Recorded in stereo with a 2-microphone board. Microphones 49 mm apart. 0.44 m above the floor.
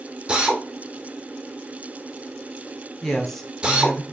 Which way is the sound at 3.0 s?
5° left (ahead or behind).